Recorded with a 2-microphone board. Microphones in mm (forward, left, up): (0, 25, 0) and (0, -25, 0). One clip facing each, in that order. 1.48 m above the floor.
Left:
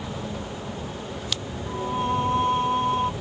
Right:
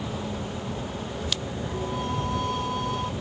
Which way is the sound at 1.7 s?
30° left (ahead or behind).